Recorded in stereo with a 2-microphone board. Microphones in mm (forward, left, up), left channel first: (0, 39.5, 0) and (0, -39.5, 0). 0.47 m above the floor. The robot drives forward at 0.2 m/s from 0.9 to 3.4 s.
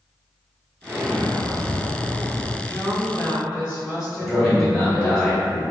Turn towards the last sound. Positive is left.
turn(degrees=10)  # may be behind; listen again after turning